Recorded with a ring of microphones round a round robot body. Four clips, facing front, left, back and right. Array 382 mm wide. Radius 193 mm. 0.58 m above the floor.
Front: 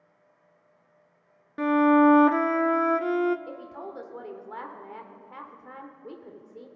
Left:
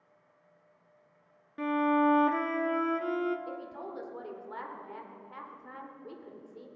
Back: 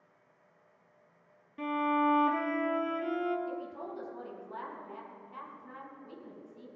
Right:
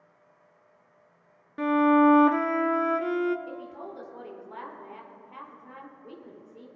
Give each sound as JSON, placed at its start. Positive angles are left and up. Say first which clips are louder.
{"t": 1.6, "sound": "a violin", "louder": "right 6 dB, front 11 dB", "azimuth_deg": -25, "distance_m": 0.6}
{"t": 3.5, "sound": "a woman speaking", "louder": "right 1 dB, even", "azimuth_deg": 10, "distance_m": 1.8}